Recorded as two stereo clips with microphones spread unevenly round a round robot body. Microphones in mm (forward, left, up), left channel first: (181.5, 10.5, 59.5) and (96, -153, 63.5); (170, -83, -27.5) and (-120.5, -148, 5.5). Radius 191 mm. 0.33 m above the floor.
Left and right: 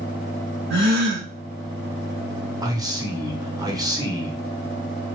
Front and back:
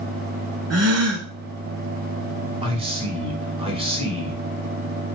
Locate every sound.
0.7 s a gasp: 130° right, 2 m
2.6 s a man speaking: 115° right, 1.0 m